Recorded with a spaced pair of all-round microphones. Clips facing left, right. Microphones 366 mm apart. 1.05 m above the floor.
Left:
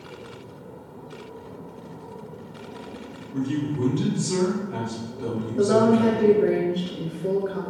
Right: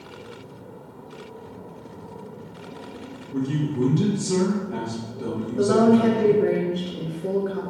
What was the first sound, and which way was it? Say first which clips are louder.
A man speaking: even; 50° right (ahead or behind).